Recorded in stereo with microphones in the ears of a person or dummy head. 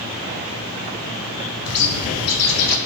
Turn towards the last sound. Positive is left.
turn(degrees=75)  # may be behind; listen again after turning